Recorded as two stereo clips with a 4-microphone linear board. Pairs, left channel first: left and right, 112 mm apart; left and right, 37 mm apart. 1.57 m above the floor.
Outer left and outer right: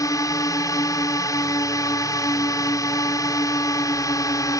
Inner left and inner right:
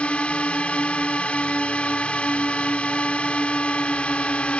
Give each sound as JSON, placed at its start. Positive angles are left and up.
{"t": 0.0, "sound": "a drone", "side_deg": 30}